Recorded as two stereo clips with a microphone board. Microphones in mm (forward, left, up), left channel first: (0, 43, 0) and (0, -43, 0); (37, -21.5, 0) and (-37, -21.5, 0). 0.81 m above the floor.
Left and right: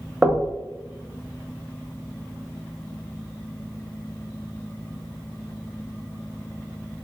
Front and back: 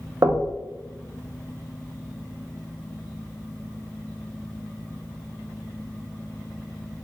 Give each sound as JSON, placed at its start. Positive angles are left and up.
{"t": 0.2, "sound": "knocking", "azimuth_deg": -160, "distance_m": 0.5}